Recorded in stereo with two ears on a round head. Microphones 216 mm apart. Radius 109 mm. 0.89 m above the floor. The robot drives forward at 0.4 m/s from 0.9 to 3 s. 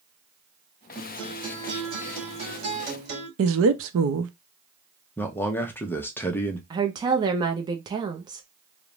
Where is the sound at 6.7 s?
20° right (ahead or behind), 0.6 m.